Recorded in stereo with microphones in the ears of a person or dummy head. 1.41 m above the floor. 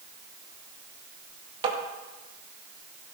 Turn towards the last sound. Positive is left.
turn(degrees=-30)  # may be behind; listen again after turning